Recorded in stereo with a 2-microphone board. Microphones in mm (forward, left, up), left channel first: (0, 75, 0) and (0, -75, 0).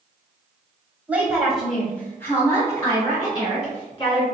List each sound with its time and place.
1.1 s a woman speaking: 10° right (ahead or behind), 1.2 m; by 4.2 s 30° left (ahead or behind), 2.5 m